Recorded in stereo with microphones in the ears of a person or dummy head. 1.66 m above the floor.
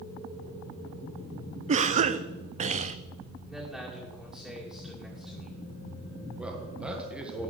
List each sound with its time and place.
1.7 s a cough: 35° right (ahead or behind), 0.6 m
3.5 s a man speaking: centre (ahead or behind), 2 m
6.4 s a man speaking: 10° right (ahead or behind), 1.5 m